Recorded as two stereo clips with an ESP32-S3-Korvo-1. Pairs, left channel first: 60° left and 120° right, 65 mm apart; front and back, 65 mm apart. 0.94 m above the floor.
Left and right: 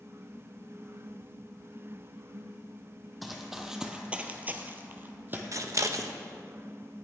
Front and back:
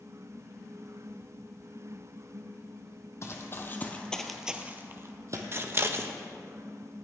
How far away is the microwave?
No microwave in this recording.